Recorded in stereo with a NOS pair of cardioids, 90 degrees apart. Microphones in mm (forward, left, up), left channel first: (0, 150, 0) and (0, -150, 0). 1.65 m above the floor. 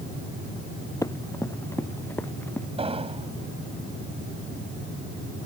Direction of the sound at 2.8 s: 20° right.